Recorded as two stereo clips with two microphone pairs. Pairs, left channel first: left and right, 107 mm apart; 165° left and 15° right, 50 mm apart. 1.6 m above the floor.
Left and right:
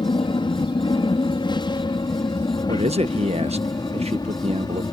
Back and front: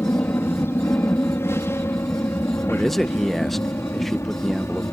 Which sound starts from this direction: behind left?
An aircraft, at 0.0 s.